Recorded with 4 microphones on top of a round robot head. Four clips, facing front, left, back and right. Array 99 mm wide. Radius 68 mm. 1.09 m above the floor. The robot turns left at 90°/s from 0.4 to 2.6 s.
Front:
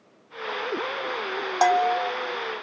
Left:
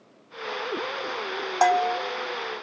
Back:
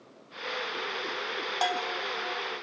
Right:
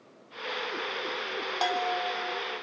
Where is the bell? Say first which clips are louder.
Left 8 dB, front 12 dB; 50° left, 0.7 m; by 2.1 s straight ahead, 0.7 m.